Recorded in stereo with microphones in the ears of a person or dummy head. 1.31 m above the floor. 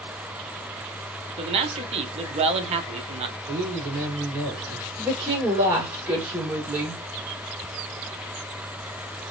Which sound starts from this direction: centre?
A woman speaking, at 5.0 s.